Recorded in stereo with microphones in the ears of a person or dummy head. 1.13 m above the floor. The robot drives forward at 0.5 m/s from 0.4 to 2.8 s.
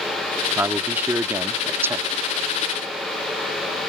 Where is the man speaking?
10° right (ahead or behind).